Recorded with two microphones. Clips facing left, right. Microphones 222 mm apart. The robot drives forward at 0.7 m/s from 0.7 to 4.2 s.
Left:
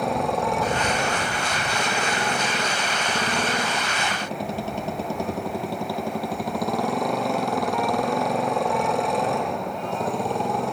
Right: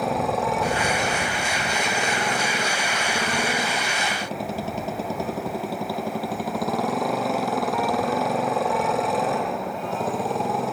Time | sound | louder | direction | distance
0.0 | a motorcycle | even | centre (ahead or behind) | ?